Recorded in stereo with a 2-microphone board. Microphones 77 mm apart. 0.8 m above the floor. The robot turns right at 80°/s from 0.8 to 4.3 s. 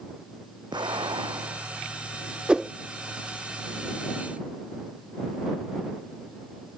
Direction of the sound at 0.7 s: 110° right.